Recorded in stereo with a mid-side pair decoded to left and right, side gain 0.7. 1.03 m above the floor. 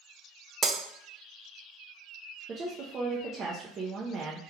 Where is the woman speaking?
35° right, 0.6 m.